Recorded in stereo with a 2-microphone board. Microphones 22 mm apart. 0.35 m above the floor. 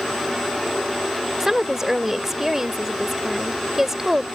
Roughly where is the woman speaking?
Centre.